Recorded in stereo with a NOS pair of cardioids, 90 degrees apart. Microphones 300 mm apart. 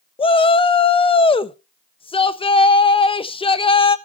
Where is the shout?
15° left, 0.8 m.